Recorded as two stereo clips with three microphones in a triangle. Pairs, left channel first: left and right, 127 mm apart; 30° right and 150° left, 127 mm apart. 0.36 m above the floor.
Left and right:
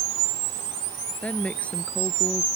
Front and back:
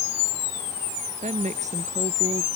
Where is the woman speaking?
170° left.